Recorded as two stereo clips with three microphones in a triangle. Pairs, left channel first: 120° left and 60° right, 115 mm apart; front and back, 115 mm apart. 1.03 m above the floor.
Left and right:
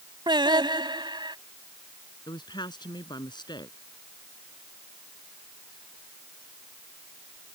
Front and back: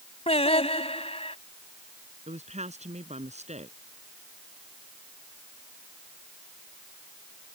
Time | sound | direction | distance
0.3 | singing | 15° right | ?
2.3 | a woman speaking | 170° left | ?